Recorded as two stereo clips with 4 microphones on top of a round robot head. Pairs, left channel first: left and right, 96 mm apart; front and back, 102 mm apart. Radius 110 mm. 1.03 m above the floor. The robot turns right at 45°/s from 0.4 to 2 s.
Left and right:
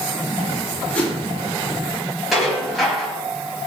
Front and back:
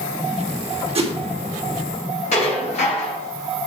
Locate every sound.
0.9 s a whoosh: 170° left, 2.5 m; by 1.1 s 175° left, 2.5 m
2.3 s dishes clattering: straight ahead, 4.5 m